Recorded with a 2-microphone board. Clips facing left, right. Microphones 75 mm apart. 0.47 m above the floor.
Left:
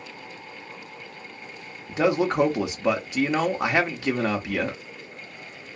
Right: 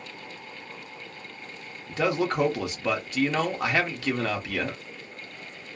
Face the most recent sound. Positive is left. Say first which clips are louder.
# left 3 dB
turn(degrees=15)  # may be behind; listen again after turning